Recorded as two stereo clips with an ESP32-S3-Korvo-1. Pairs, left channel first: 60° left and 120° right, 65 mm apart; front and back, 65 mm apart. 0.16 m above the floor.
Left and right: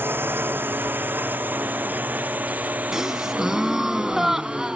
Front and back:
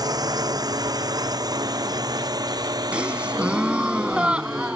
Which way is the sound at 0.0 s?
175° right.